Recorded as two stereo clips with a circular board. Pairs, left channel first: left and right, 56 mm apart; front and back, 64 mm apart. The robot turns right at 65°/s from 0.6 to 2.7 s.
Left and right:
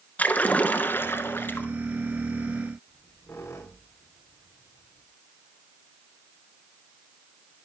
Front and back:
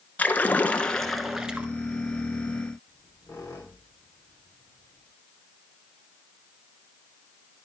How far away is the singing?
No singing in this recording.